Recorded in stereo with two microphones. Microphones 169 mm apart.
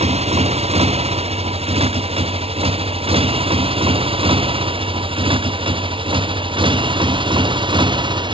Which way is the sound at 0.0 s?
40° right (ahead or behind).